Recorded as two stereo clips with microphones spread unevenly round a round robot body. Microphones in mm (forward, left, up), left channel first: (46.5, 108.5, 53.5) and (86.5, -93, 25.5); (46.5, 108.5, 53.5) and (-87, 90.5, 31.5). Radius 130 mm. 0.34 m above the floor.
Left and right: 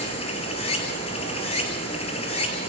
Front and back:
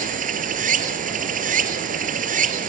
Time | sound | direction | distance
0.0 | running water | 170° left | 2.5 m